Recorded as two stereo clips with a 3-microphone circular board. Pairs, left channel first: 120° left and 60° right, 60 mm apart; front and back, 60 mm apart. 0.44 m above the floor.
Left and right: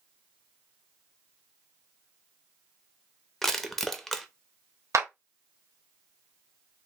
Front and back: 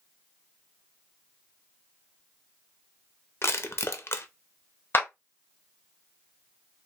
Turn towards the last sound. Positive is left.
turn(degrees=-45)